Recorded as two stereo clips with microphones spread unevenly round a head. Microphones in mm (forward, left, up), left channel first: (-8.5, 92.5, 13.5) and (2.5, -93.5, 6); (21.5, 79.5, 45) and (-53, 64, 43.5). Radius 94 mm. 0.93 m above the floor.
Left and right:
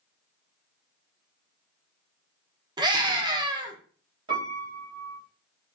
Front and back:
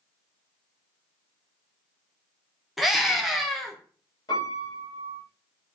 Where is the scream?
85° right, 0.8 m.